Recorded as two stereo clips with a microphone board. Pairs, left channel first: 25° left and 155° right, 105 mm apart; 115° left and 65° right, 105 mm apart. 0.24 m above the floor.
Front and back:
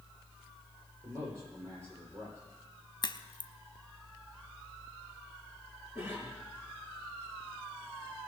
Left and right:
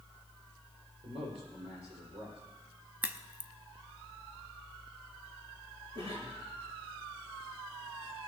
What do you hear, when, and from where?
1.0 s a man speaking: 100° right, 8.5 m
3.0 s a crack: straight ahead, 0.6 m
6.0 s a cough: 90° right, 5.5 m